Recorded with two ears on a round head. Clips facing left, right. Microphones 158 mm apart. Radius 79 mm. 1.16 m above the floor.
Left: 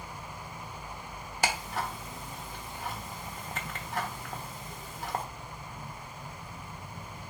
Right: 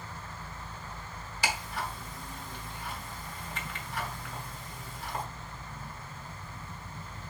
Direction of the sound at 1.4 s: 40° left (ahead or behind).